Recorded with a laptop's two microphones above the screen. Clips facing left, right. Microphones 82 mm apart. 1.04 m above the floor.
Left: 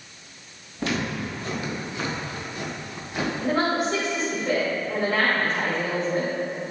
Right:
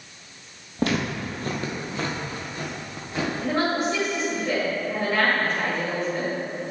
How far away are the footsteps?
About 1.4 m.